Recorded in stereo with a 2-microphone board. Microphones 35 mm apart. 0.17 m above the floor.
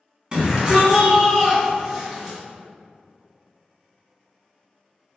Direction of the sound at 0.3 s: 30° right (ahead or behind).